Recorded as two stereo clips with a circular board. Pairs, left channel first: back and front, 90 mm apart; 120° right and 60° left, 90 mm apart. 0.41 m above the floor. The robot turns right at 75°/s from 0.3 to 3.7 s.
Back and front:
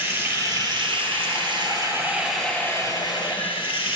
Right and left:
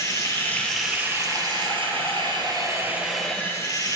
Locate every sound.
0.0 s running water: 65° right, 1.5 m; by 4.0 s 170° right, 1.5 m